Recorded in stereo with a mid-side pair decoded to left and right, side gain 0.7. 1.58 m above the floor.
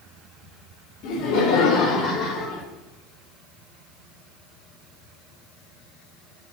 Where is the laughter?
65° left, 4 m; by 2.7 s 25° left, 2.5 m.